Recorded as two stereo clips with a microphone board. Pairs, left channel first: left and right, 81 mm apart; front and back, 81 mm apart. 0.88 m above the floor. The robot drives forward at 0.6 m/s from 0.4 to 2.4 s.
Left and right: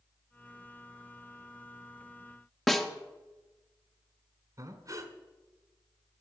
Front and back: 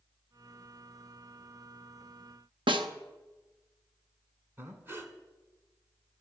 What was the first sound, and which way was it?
A snare drum, 175° left.